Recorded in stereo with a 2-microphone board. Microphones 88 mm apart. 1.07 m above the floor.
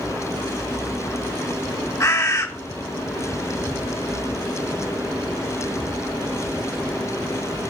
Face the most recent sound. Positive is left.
turn(degrees=35)  # may be behind; listen again after turning